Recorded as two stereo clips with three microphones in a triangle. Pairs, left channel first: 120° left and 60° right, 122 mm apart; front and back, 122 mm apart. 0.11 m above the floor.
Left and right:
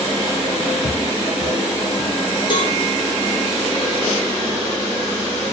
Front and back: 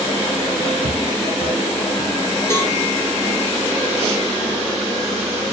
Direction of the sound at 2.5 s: 70° left.